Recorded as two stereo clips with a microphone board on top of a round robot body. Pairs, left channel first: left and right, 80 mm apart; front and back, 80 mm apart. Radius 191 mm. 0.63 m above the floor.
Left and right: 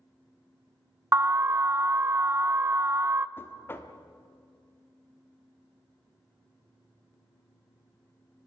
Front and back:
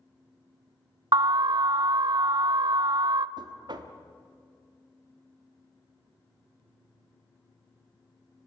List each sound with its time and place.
1.1 s an alarm: 150° right, 0.5 m
3.4 s knocking: 155° left, 1.2 m